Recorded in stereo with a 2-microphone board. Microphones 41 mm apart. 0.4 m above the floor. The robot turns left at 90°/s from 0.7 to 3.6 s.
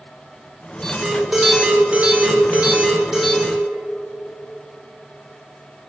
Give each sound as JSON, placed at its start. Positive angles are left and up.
{"t": 0.8, "sound": "an alarm", "azimuth_deg": 45, "distance_m": 1.4}